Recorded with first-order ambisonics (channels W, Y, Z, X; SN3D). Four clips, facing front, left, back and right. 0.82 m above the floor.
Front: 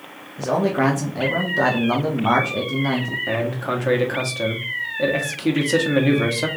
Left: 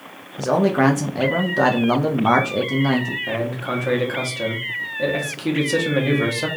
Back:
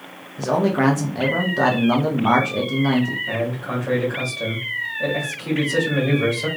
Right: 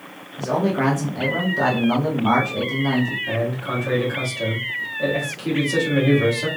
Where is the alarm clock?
No alarm clock in this recording.